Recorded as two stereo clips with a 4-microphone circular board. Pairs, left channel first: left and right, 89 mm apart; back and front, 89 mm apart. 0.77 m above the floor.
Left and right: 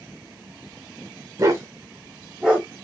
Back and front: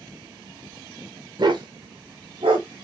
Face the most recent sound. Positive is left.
turn(degrees=0)